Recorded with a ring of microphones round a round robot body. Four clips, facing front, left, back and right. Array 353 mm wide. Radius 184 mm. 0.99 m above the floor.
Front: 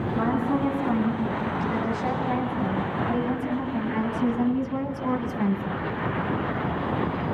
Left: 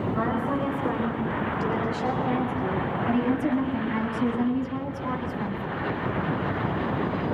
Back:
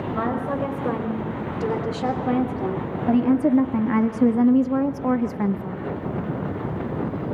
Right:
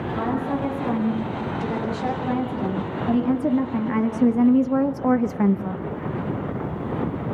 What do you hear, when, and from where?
0.1 s a woman speaking: 175° left, 5.5 m; by 5.8 s 90° right, 1.5 m